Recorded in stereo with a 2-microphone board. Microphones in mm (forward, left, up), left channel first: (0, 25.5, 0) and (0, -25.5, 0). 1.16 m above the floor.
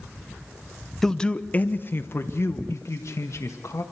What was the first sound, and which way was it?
A man speaking, 10° left (ahead or behind).